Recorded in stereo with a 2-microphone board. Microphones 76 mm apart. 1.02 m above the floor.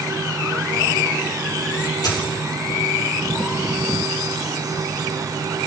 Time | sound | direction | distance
2.0 | a dropped coin | 65° left (ahead or behind) | 7.5 m